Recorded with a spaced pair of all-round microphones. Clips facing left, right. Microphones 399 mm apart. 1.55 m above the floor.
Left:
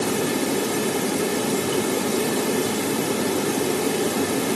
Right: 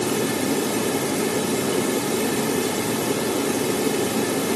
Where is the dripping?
No dripping in this recording.